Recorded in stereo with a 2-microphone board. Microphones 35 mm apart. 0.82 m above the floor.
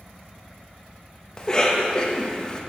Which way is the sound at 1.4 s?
20° left (ahead or behind).